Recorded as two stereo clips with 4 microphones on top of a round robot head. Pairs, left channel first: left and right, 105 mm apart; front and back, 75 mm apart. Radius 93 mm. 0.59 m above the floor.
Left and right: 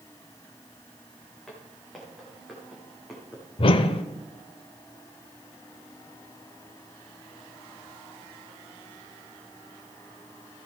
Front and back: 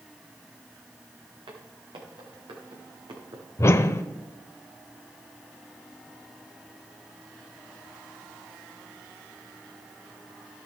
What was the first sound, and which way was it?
Footsteps, 175° left.